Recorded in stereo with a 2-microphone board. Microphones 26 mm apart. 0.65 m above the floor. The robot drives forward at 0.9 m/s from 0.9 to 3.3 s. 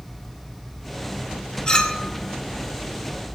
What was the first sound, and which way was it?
A clink, 30° left (ahead or behind).